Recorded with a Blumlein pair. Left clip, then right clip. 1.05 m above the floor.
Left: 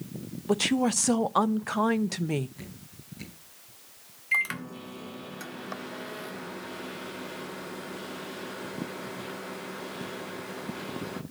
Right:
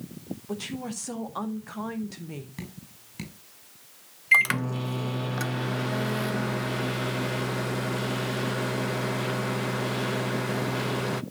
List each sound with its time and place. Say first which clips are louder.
0.5 s a woman speaking: left 11 dB; 30° left, 0.6 m
2.6 s dripping: right 3 dB; 60° right, 5.5 m
4.3 s a microwave: right 7 dB; 65° right, 0.6 m